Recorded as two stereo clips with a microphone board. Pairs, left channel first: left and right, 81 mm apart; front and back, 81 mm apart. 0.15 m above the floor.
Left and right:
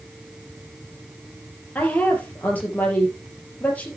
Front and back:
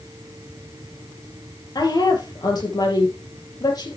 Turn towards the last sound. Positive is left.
turn(degrees=20)